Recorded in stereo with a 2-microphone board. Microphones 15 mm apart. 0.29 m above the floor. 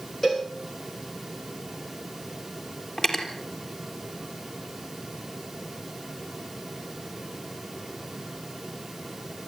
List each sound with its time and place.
0.2 s a cowbell: 15° left (ahead or behind), 7 m
3.0 s cutlery clinking: 35° left (ahead or behind), 4 m